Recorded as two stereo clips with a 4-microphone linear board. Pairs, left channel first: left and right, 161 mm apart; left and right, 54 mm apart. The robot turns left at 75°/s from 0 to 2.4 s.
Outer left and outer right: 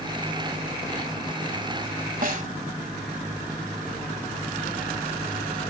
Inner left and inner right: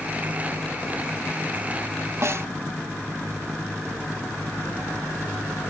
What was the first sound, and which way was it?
A snare drum, 60° right (ahead or behind).